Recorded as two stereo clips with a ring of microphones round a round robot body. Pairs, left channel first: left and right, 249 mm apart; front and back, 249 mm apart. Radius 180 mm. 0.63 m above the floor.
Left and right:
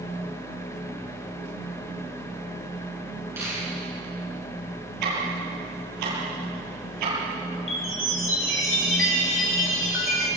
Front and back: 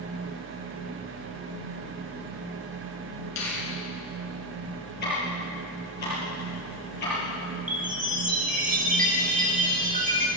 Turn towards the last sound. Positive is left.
turn(degrees=125)